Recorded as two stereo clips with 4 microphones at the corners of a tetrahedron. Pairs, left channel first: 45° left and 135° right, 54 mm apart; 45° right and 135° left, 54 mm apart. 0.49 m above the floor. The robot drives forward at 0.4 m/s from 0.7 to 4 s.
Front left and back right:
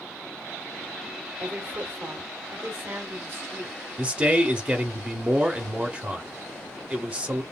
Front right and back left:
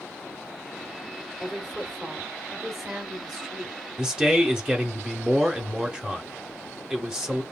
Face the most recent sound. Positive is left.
turn(degrees=-160)